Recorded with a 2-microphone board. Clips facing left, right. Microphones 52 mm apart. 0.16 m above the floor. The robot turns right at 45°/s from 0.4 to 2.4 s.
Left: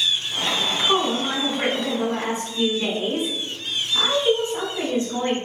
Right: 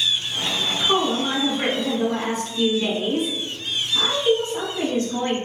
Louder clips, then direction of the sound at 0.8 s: Right 1 dB; 5° left (ahead or behind).